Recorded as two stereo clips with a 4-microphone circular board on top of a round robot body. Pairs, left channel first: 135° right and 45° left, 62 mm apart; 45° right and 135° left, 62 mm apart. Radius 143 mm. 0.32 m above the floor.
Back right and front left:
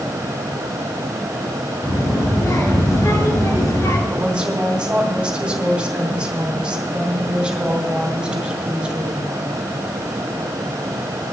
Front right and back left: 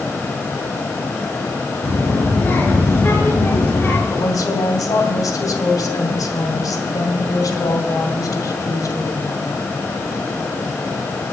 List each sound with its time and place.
1.8 s a child speaking: 105° right, 3.5 m
4.1 s a woman speaking: 30° right, 2.5 m